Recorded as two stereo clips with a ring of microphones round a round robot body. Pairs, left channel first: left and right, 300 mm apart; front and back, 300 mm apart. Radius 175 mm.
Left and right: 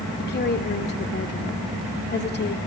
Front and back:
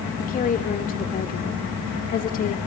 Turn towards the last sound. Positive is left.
turn(degrees=50)